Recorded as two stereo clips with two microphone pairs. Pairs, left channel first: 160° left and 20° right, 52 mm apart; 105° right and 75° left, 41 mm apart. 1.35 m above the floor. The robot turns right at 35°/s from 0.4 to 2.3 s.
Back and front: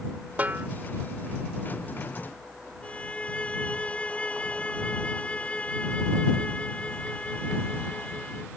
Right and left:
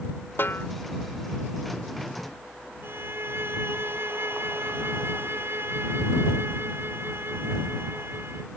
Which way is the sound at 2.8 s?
95° left.